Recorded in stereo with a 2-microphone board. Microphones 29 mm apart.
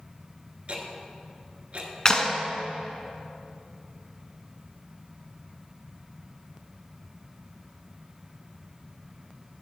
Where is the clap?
25° left (ahead or behind), 0.9 m.